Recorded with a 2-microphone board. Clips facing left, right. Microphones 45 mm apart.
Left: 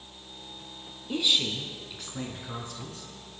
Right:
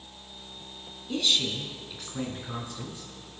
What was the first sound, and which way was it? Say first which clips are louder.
A woman speaking: even; 15° left (ahead or behind).